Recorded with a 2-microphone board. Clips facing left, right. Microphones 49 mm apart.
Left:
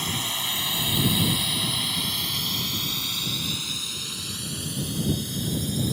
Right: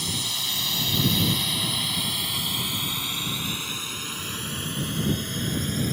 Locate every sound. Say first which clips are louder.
0.0 s a drone: left 2 dB; 30° left (ahead or behind); by 5.9 s 45° right (ahead or behind)